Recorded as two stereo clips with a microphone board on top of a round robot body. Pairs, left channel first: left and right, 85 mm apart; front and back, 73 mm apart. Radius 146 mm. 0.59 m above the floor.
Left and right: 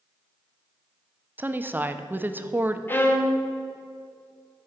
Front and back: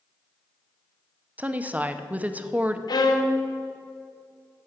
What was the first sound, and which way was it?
A woman speaking, 130° right.